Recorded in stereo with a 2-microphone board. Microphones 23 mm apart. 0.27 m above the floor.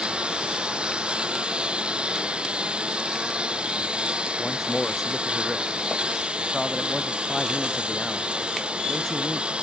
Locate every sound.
0.0 s a lawn mower: 55° right (ahead or behind); by 9.6 s 60° right (ahead or behind)
4.4 s a man speaking: 20° left (ahead or behind)